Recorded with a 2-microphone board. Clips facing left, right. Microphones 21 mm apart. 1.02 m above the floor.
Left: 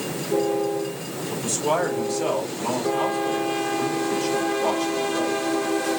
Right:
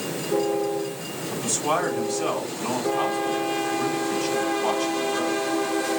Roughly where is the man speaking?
Centre.